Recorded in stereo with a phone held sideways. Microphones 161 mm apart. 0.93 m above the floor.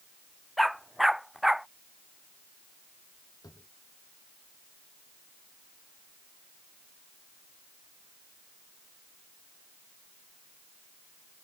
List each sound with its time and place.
0.6 s a dog barking: centre (ahead or behind)
3.4 s a drawer: 20° left (ahead or behind)